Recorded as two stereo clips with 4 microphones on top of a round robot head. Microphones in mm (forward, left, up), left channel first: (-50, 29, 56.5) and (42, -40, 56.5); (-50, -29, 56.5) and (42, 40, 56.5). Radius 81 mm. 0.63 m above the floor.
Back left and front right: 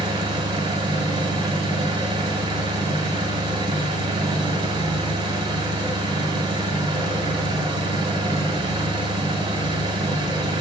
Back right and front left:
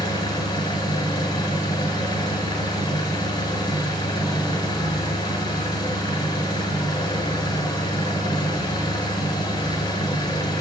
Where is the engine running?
85° right, 1.3 m.